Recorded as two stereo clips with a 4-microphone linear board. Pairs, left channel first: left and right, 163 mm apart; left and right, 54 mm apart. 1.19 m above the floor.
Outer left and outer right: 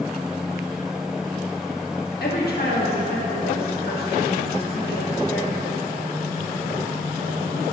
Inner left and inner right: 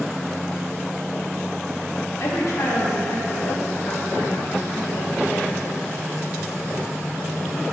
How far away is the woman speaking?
About 1.5 m.